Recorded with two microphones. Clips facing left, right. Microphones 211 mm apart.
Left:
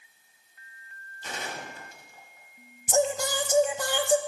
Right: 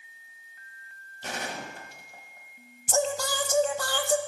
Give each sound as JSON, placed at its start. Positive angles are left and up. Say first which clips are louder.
{"t": 1.2, "sound": "a gunshot", "louder": "right 2 dB", "side_deg": -70, "distance_m": 1.2}
{"t": 2.9, "sound": "singing", "louder": "left 2 dB", "side_deg": 20, "distance_m": 0.5}